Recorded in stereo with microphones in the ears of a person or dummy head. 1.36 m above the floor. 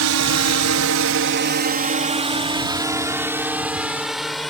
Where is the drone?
75° right (ahead or behind); by 4.5 s centre (ahead or behind).